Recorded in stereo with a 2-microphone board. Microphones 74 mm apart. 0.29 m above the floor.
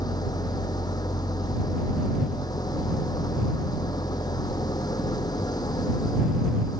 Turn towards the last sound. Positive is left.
turn(degrees=55)  # may be behind; listen again after turning